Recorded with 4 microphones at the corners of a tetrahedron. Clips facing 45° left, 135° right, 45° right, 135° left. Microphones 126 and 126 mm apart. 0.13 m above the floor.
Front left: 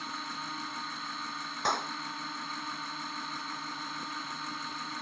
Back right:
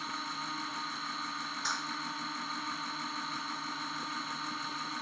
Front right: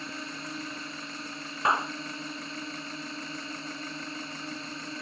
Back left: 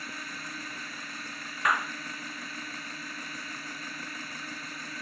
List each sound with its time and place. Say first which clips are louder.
0.0 s a drone: even, front right 3 dB; 45° right
1.6 s a clap: front left 9 dB, front right 2 dB; 20° left